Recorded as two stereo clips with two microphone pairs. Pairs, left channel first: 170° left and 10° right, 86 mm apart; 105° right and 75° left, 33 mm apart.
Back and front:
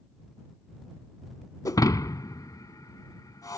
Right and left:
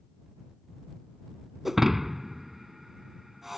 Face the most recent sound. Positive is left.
turn(degrees=155)